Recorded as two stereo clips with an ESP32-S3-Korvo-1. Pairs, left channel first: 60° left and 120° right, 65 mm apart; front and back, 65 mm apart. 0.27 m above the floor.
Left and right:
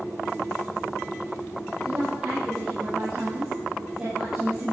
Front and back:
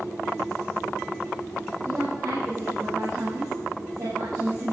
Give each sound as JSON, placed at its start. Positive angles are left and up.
{"t": 1.8, "sound": "a woman speaking", "azimuth_deg": 155, "distance_m": 9.0}